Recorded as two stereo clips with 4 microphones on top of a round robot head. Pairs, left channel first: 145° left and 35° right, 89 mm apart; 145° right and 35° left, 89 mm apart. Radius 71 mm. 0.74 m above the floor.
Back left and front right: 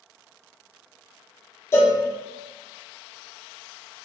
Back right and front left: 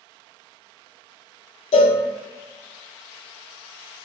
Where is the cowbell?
155° right, 0.5 m.